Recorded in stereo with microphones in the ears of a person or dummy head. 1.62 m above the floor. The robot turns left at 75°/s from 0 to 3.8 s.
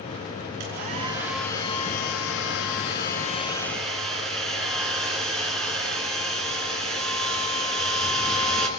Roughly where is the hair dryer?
Behind right.